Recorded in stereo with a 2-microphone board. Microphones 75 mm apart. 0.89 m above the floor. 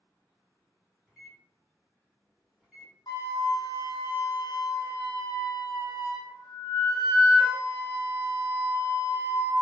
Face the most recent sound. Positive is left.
turn(degrees=60)  # may be behind; listen again after turning